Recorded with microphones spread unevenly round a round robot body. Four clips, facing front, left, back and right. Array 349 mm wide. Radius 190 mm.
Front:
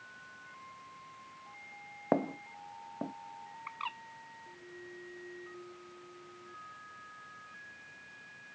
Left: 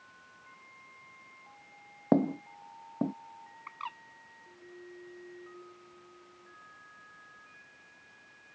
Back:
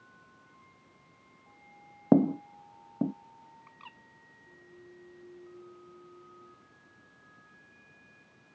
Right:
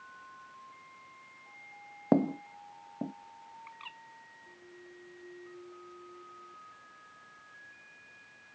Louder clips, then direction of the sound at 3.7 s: Left 7 dB, front 11 dB; 40° left.